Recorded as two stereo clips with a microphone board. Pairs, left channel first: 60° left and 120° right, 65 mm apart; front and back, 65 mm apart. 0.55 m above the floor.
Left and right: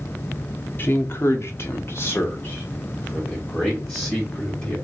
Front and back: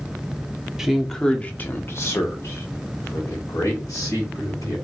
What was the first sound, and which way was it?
A man speaking, 100° left.